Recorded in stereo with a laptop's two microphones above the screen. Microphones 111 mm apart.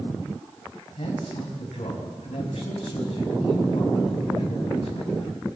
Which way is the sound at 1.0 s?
80° left.